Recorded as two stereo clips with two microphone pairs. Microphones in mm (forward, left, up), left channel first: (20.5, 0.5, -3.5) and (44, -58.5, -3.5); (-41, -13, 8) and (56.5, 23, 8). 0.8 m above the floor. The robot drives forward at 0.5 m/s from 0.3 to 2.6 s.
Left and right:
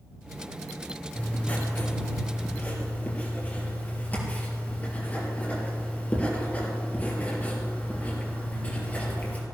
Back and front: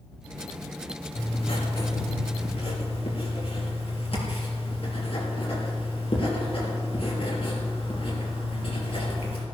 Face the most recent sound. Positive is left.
turn(degrees=175)